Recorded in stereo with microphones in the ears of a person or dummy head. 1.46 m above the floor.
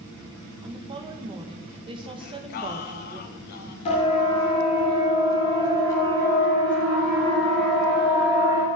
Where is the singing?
45° left (ahead or behind), 1.7 m.